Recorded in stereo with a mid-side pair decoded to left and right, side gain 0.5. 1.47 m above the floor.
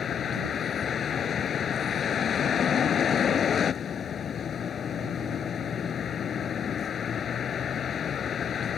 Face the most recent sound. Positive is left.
turn(degrees=50)